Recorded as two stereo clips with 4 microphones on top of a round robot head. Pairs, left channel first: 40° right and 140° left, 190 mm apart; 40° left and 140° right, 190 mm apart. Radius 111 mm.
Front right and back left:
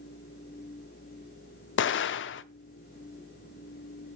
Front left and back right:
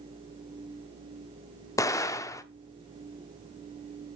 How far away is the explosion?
About 0.6 m.